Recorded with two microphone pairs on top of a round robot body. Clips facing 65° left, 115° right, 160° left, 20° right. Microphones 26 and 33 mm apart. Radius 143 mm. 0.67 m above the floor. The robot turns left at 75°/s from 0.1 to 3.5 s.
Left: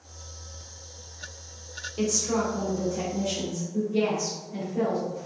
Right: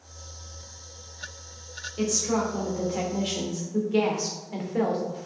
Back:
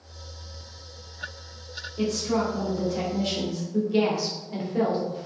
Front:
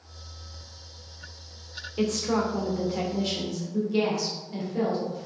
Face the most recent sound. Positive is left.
turn(degrees=-125)